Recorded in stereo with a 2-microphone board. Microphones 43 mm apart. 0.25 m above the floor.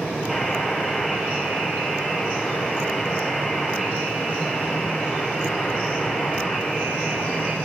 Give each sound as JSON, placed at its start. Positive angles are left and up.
{"t": 0.3, "sound": "a buzzer", "side_deg": -5, "distance_m": 7.5}